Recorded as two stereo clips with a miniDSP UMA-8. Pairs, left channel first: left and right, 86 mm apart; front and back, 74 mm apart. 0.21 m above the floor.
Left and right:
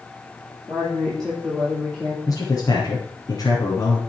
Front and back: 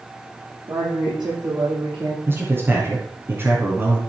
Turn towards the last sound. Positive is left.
turn(degrees=130)